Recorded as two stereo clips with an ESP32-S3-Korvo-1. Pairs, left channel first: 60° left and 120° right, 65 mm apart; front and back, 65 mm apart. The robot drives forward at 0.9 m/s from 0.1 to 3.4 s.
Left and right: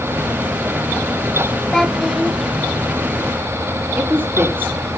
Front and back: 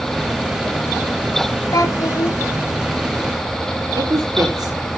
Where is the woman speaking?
Straight behind, 4 m.